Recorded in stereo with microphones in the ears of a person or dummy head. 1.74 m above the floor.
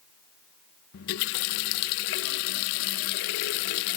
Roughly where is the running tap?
Left.